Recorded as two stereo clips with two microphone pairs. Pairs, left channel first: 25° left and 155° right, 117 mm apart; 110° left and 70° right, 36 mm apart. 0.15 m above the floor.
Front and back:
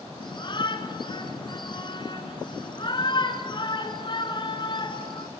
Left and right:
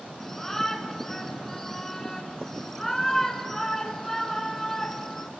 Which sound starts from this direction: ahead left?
A shout, at 0.2 s.